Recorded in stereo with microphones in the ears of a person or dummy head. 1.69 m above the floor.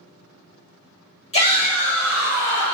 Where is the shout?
35° left (ahead or behind), 1.5 m; by 2.8 s 30° right (ahead or behind), 1.5 m.